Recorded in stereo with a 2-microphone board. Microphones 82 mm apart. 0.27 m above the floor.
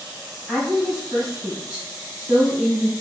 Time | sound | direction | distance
0.5 | a woman speaking | 5° right (ahead or behind) | 1.5 m